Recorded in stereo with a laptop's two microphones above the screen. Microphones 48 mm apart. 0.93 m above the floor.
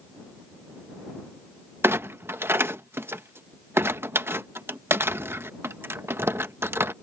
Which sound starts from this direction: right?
A clunk, at 1.8 s.